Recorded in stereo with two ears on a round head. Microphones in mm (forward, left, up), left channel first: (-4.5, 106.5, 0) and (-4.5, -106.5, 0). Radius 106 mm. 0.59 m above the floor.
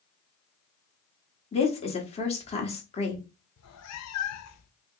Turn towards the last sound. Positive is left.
turn(degrees=75)  # may be behind; listen again after turning